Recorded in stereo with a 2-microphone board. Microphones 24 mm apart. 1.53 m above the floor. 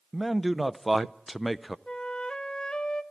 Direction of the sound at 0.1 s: Centre (ahead or behind).